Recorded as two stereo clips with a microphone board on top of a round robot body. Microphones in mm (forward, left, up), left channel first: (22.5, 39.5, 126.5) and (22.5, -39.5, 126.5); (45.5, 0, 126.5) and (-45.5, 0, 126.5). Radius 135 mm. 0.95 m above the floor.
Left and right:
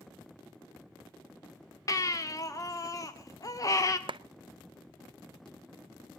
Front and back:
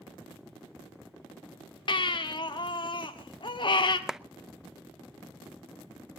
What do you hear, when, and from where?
1.9 s a baby crying: 40° left, 1.6 m
4.1 s a clap: 95° right, 0.8 m